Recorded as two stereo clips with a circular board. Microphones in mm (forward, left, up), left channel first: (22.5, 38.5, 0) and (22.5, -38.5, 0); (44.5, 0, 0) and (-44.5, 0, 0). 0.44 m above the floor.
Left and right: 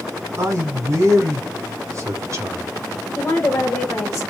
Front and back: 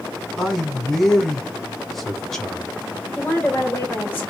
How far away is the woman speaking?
About 1.9 m.